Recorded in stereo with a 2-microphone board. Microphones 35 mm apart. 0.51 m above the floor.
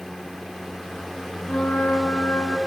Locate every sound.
1.5 s a flute: 55° left (ahead or behind), 1.9 m